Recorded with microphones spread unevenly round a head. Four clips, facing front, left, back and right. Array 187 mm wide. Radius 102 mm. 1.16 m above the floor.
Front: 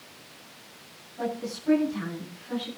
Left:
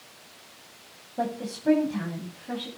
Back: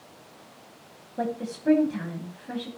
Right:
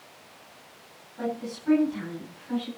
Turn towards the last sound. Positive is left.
turn(degrees=135)